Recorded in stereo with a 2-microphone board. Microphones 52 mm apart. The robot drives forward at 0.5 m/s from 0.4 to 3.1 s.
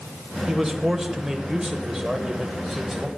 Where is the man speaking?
10° right (ahead or behind), 1.1 m; by 3.1 s 5° right (ahead or behind), 1.2 m.